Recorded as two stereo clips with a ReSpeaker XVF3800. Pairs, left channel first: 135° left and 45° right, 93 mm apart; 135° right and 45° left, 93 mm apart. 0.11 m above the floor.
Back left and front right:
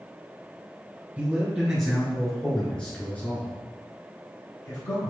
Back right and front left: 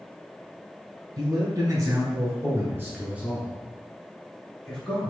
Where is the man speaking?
30° left, 2.0 m; by 5.1 s 155° left, 2.0 m.